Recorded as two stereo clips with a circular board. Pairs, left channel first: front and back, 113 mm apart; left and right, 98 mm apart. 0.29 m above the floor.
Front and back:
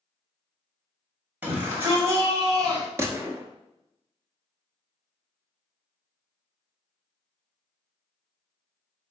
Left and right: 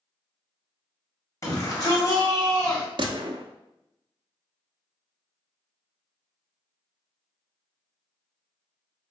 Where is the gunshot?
115° right, 0.6 m.